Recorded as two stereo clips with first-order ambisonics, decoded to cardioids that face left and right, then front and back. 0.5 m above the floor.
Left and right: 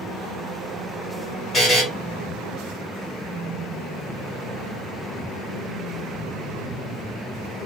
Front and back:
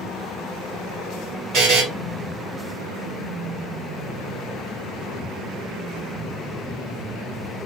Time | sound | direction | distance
1.5 | a buzzer | 160° left | 1.1 m